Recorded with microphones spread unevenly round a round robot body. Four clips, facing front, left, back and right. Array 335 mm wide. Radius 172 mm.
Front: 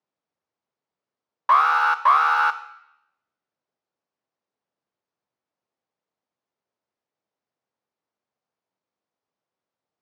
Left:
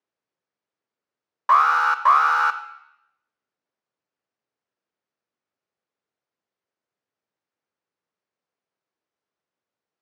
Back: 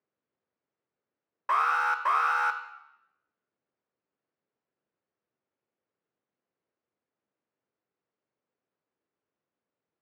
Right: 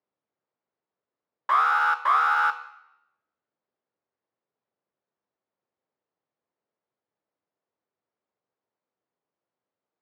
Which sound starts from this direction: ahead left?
An alarm, at 1.5 s.